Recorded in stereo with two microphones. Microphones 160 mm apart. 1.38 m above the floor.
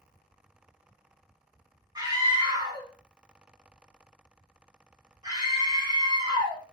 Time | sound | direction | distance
1.9 | a scream | 25° right (ahead or behind) | 1.8 m